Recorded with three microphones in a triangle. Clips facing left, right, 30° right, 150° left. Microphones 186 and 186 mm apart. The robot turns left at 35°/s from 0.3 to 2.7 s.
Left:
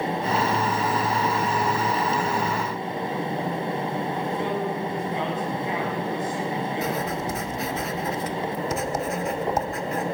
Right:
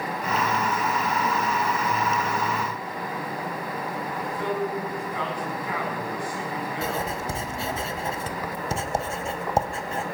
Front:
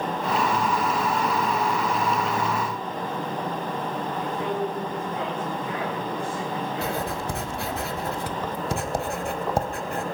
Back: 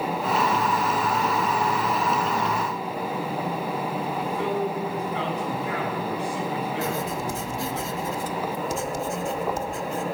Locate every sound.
4.2 s a man speaking: 155° left, 7.5 m
6.8 s writing: 30° right, 1.2 m